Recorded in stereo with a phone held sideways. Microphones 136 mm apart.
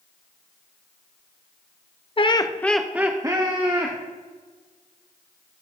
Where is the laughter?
40° left (ahead or behind), 0.6 m; by 4.0 s 40° right (ahead or behind), 1.3 m.